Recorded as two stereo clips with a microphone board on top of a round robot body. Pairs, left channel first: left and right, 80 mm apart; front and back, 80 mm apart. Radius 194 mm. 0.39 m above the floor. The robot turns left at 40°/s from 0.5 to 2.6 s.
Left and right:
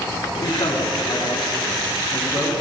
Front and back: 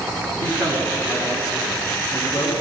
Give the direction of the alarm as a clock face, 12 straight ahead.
No alarm in this recording.